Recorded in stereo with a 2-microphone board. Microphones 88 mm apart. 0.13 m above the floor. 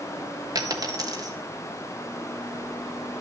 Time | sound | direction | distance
0.6 | a dropped coin | 45° right (ahead or behind) | 1.4 m